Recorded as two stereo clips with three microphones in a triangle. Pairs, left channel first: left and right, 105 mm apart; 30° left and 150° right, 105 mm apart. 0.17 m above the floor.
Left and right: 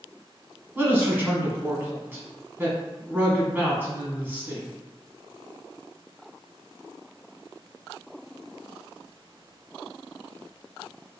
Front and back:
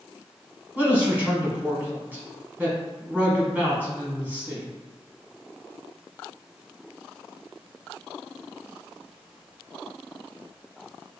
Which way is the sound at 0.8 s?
115° right.